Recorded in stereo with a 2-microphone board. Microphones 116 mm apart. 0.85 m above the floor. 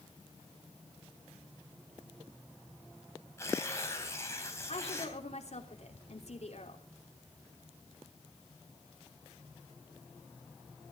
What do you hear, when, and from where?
3.4 s tearing paper: 25° left (ahead or behind), 3.5 m
4.7 s a woman speaking: 70° left (ahead or behind), 3 m